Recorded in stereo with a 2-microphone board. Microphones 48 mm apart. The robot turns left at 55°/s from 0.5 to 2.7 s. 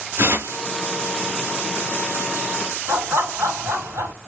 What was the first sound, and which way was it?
Tearing paper, 60° right (ahead or behind).